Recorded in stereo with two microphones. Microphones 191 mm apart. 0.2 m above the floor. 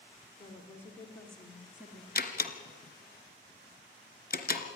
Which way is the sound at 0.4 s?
15° left (ahead or behind).